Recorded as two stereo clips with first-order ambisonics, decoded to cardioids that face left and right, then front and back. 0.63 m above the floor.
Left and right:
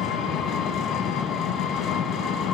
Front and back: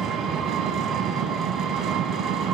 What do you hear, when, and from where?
0.0 s an engine running: 135° left, 0.9 m